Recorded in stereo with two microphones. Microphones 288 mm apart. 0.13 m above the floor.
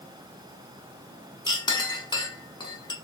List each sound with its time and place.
1.5 s a clink: 15° left (ahead or behind), 0.6 m